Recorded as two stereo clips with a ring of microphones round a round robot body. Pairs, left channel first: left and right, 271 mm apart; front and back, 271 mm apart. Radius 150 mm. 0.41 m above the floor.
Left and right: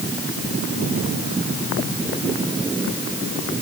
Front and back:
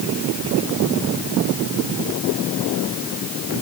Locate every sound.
Only background noise.